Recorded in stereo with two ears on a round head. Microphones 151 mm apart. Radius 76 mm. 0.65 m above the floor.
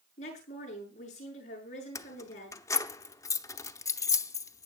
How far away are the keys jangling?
About 0.8 m.